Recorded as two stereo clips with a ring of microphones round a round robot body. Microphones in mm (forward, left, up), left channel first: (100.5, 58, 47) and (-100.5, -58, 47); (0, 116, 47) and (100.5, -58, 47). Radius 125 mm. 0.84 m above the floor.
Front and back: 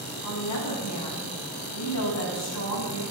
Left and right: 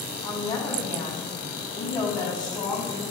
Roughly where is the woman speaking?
Ahead left.